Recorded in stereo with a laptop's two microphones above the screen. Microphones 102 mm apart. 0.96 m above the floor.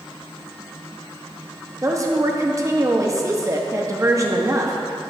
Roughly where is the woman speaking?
Right.